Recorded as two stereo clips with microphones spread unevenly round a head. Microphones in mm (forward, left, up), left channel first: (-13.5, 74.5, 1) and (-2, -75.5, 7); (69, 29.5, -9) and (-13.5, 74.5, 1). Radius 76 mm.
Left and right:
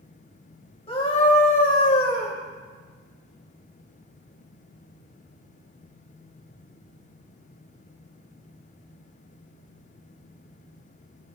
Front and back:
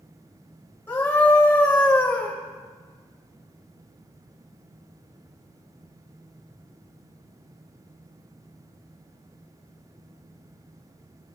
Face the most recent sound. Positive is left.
turn(degrees=45)